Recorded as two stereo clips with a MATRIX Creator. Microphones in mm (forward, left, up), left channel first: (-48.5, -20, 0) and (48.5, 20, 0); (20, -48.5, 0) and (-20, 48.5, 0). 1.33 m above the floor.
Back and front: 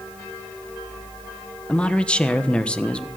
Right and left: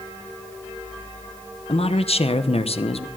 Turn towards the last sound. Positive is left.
turn(degrees=-80)